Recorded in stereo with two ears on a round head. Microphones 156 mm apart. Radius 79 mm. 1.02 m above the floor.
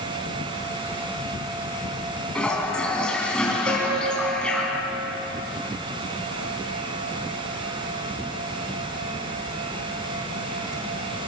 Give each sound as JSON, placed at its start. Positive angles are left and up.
{"t": 2.4, "sound": "a toilet flushing", "side_deg": 5, "distance_m": 4.5}
{"t": 3.7, "sound": "a piano", "side_deg": -25, "distance_m": 9.0}